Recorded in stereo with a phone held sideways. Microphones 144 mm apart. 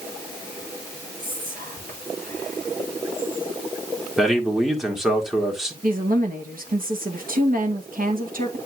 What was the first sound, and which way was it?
Whispering, 80° right.